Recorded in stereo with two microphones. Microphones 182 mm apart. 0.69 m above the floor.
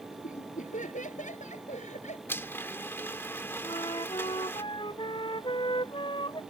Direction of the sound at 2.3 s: 10° left (ahead or behind).